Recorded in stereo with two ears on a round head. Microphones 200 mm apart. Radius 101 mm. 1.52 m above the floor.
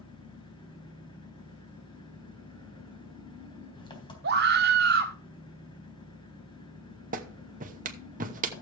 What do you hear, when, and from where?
0.0 s an engine running: 20° left (ahead or behind), 3.5 m
4.2 s a scream: 45° right (ahead or behind), 1.3 m
7.1 s a clap: 35° right (ahead or behind), 1.0 m